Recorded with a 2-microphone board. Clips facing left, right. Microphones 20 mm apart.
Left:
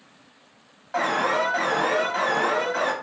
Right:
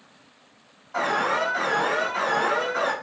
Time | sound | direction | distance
0.9 | an alarm | 65° left (ahead or behind) | 1.8 m